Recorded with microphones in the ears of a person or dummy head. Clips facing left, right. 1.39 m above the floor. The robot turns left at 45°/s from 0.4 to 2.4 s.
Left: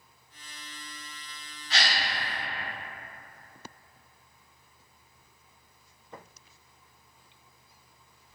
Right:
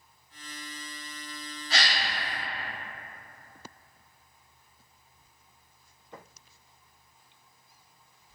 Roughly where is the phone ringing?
I don't hear a phone ringing.